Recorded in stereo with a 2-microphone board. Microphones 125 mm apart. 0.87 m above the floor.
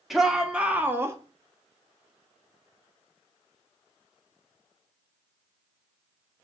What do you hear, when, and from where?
0.1 s a shout: centre (ahead or behind), 1.7 m; by 1.2 s 25° right (ahead or behind), 1.1 m